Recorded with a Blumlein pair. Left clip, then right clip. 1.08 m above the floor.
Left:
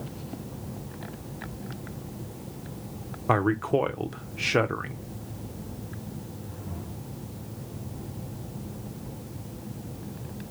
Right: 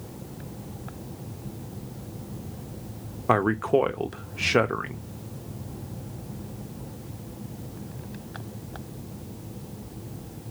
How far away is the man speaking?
About 0.6 m.